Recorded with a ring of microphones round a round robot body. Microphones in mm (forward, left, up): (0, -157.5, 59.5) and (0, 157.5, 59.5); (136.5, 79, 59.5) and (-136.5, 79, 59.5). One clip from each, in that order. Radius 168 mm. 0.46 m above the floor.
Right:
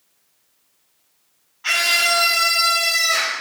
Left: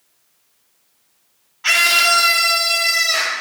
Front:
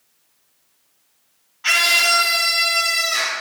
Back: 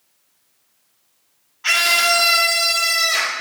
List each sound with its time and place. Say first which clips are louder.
1.6 s a scream: left 4 dB, even; 85° left, 1.3 m; by 3.3 s 165° right, 1.9 m